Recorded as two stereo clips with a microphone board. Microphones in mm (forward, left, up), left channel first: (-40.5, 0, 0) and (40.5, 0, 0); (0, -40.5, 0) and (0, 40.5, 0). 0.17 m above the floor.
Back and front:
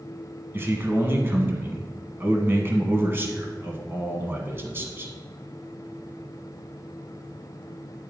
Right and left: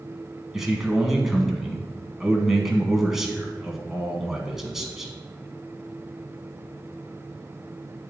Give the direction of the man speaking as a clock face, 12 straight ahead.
12 o'clock.